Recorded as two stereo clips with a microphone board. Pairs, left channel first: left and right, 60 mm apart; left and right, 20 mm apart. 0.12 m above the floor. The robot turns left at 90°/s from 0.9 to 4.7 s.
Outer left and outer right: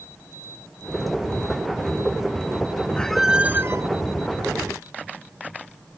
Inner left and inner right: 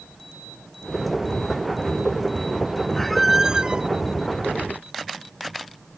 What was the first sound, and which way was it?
A squeak, 20° left.